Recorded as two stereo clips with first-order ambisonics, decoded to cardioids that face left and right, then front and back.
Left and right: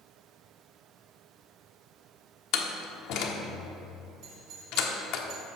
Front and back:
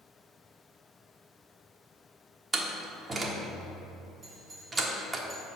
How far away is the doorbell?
About 3 m.